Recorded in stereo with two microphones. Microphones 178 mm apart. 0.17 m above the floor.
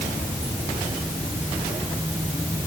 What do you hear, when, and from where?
Only background noise.